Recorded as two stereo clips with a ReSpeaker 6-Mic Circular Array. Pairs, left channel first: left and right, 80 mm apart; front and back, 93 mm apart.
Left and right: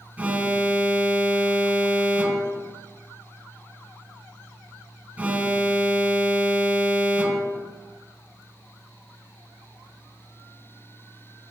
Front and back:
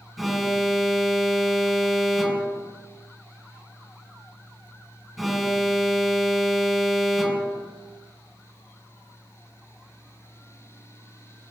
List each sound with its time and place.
0.2 s an alarm: 90° right, 1.5 m